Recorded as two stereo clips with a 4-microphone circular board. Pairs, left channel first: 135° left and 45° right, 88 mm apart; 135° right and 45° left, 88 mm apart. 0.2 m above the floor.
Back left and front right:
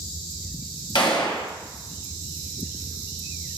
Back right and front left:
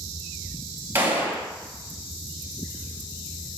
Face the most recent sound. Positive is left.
turn(degrees=110)